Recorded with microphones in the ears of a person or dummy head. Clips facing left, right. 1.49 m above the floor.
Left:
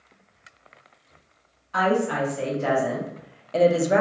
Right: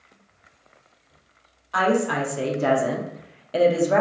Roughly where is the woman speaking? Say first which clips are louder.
Right 1 dB; right.